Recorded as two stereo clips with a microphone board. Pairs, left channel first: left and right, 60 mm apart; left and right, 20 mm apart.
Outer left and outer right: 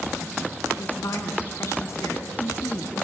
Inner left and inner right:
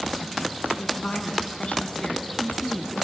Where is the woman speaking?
50° left (ahead or behind), 3 m.